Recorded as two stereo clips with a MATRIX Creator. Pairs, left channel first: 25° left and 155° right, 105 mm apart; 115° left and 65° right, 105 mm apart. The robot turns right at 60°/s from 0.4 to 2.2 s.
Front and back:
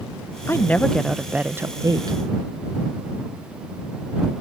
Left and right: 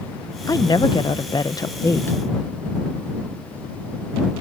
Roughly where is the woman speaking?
Left.